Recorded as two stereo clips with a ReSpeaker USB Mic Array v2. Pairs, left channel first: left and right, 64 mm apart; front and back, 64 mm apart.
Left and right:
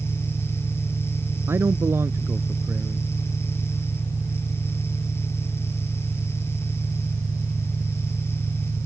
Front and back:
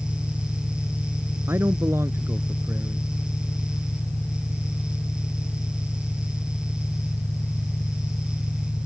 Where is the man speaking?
135° right.